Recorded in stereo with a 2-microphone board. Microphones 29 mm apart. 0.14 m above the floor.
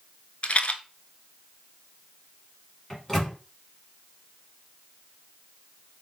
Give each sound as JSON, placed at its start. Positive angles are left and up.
{"t": 0.4, "sound": "a rattle", "side_deg": 40, "distance_m": 0.5}
{"t": 2.9, "sound": "a microwave", "side_deg": 15, "distance_m": 1.3}